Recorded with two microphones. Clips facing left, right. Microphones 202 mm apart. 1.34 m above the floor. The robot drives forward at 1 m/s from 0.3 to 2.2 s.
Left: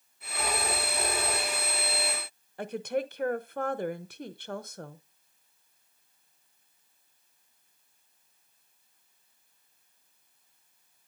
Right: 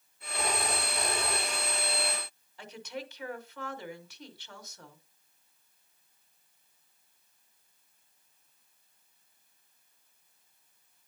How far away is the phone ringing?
About 5.5 m.